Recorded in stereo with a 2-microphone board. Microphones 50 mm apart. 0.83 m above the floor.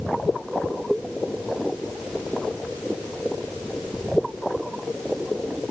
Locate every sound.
Only background noise.